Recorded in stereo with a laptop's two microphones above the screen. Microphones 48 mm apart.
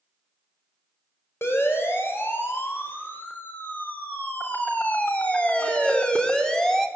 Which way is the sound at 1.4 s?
55° left (ahead or behind).